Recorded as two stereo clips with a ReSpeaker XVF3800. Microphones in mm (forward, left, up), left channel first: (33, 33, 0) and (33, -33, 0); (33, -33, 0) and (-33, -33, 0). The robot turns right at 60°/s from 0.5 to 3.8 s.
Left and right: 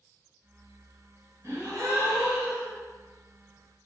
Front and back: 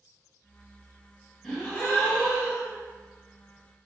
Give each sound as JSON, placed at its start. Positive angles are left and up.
{"t": 1.4, "sound": "a gasp", "azimuth_deg": -85, "distance_m": 1.3}